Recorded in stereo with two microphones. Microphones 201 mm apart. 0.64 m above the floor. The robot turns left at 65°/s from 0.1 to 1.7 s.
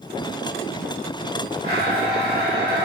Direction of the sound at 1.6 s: 30° left (ahead or behind).